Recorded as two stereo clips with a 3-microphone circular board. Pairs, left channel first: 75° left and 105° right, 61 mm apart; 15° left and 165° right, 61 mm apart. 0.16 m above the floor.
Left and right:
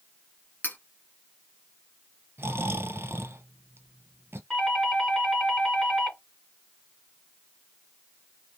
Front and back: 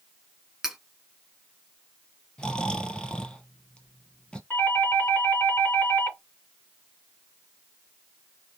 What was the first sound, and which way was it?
Cutlery clinking, 120° left.